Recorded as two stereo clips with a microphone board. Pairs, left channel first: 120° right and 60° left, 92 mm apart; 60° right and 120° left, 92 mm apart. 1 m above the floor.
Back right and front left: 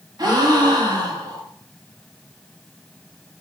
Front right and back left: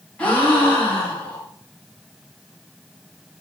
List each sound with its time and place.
0.2 s a gasp: 15° left, 1.1 m